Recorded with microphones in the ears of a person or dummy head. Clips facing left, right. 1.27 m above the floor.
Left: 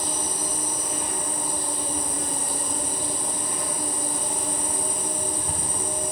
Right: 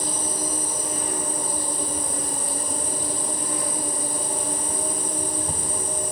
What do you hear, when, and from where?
0.0 s an insect: 45° right (ahead or behind), 1.4 m